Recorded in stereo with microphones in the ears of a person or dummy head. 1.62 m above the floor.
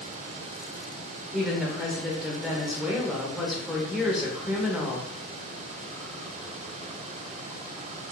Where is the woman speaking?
Centre (ahead or behind), 0.8 m.